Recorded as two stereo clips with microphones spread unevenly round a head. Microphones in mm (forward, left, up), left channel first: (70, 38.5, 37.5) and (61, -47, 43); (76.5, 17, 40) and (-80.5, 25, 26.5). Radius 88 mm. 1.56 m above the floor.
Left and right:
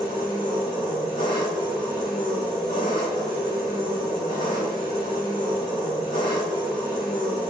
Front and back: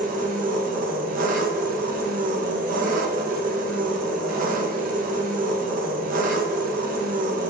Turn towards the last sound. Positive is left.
turn(degrees=140)